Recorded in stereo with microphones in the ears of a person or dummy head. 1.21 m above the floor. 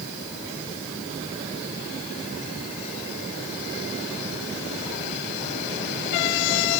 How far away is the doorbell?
No doorbell in this recording.